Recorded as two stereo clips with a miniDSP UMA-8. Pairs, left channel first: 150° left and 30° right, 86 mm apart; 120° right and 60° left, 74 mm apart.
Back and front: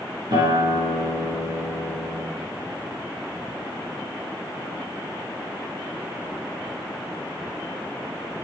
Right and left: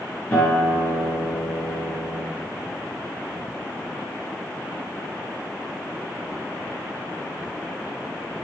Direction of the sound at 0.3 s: 50° right.